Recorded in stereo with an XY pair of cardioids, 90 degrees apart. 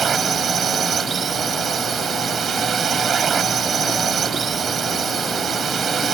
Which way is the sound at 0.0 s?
55° right.